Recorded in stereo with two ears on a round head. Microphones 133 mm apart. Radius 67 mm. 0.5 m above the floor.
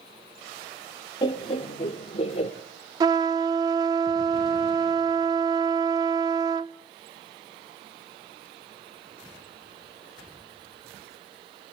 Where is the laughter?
30° left (ahead or behind), 1.4 m; by 2.5 s 45° left (ahead or behind), 1.6 m.